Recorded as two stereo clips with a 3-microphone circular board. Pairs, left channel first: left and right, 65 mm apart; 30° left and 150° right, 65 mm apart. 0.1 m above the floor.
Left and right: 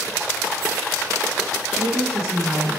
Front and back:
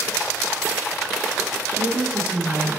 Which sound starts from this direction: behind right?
A woman speaking, at 1.7 s.